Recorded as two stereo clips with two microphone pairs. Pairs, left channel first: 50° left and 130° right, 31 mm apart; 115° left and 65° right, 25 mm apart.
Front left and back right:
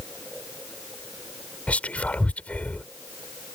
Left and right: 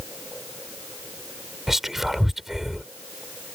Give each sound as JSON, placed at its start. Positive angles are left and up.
{"t": 1.7, "sound": "whispering", "azimuth_deg": 10}